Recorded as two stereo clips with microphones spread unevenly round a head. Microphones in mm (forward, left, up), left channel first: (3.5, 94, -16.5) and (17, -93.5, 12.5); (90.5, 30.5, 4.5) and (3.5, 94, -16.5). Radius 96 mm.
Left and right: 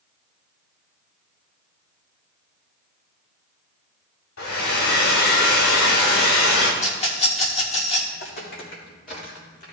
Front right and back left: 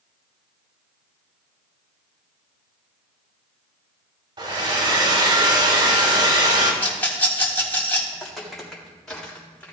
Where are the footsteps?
55° left, 4 m; by 9.7 s 40° left, 4.5 m.